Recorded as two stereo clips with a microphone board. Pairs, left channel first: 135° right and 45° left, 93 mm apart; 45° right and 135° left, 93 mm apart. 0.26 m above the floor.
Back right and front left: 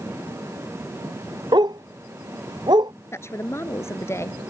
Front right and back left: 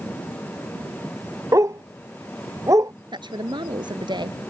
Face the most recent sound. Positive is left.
turn(degrees=165)